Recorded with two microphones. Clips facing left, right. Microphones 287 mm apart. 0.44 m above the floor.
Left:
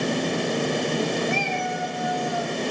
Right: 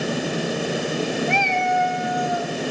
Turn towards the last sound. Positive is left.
turn(degrees=-90)